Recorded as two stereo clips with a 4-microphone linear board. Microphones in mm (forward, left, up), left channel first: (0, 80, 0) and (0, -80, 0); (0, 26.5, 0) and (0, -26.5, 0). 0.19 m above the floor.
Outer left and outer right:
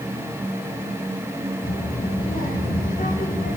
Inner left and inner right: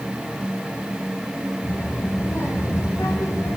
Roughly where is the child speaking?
Left.